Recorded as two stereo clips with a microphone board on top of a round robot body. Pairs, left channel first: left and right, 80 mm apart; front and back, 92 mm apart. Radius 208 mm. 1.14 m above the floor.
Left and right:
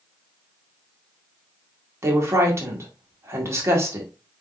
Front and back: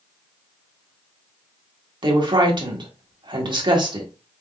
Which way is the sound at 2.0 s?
145° right.